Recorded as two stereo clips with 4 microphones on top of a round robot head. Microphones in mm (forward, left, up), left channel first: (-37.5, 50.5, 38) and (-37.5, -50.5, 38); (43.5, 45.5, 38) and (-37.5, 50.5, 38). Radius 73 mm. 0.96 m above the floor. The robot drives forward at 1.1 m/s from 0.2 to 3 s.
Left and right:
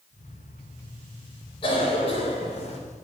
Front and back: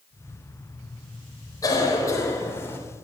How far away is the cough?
About 4 m.